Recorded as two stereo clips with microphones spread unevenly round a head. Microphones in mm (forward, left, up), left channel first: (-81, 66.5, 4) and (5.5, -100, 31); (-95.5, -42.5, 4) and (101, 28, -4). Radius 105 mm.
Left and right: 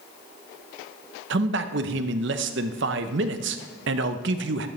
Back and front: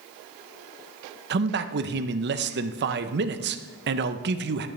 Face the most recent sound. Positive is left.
turn(degrees=-20)